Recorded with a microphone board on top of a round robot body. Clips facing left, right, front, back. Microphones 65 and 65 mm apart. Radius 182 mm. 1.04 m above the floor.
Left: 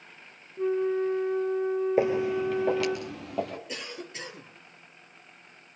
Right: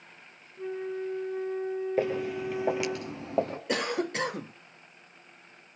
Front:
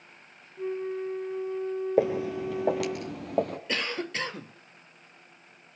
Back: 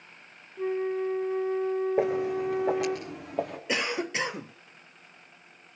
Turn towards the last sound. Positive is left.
turn(degrees=-105)